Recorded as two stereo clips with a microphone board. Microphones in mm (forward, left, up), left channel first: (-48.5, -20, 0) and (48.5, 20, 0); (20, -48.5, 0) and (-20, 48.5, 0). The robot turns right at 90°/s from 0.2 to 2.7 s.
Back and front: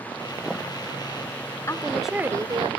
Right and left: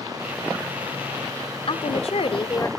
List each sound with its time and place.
1.7 s a woman speaking: 100° right, 1.7 m; by 2.7 s 5° right, 1.7 m